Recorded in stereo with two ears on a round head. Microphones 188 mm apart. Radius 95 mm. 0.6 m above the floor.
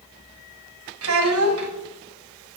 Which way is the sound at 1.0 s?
80° right.